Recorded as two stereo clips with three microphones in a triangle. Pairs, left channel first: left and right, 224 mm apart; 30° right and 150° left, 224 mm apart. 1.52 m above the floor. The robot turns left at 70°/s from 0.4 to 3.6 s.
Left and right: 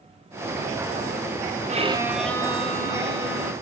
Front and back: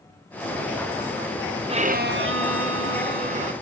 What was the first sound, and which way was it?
A violin, 145° right.